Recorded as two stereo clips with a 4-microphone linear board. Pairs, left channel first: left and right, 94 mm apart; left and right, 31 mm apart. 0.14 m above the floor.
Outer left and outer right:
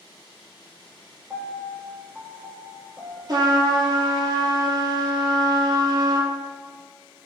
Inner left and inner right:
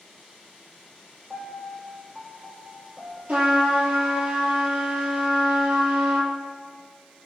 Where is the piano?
20° right (ahead or behind), 1.4 m.